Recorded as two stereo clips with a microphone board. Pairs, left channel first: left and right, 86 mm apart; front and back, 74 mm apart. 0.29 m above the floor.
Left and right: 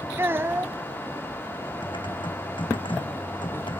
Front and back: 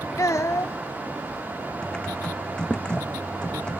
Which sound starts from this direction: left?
Typing on a keyboard, at 1.8 s.